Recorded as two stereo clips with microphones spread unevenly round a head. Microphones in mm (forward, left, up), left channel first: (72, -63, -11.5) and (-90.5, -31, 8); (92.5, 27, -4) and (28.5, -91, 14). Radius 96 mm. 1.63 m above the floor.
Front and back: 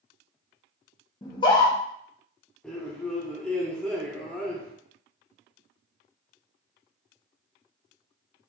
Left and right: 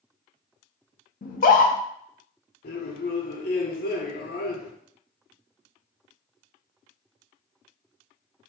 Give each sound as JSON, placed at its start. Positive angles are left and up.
{"t": 1.2, "sound": "a scream", "azimuth_deg": 55, "distance_m": 0.6}
{"t": 2.6, "sound": "a man speaking", "azimuth_deg": 80, "distance_m": 0.8}